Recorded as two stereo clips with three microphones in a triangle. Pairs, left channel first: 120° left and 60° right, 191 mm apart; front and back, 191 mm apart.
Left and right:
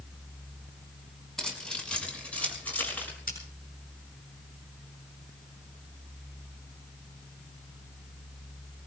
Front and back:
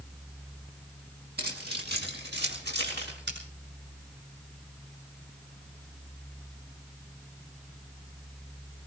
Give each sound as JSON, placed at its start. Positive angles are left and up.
{"t": 1.4, "sound": "keys jangling", "azimuth_deg": -155, "distance_m": 5.0}
{"t": 3.3, "sound": "scissors", "azimuth_deg": 160, "distance_m": 8.0}